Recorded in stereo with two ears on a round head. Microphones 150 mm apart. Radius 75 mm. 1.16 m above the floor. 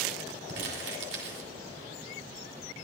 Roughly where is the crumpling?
Right.